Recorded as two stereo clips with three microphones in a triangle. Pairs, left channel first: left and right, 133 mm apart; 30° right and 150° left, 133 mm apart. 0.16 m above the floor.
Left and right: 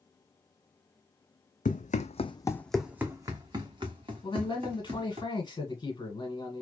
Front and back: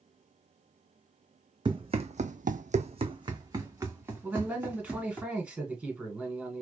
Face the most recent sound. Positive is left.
turn(degrees=80)